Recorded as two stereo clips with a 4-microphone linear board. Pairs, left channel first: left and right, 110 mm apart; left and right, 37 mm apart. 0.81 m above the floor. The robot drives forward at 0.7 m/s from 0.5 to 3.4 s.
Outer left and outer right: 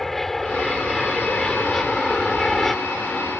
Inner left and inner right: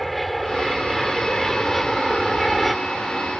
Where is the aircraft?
Centre (ahead or behind).